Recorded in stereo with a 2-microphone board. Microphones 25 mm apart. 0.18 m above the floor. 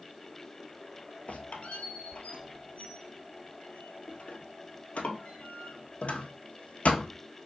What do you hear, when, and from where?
1.3 s a squeak: 80° left, 1.0 m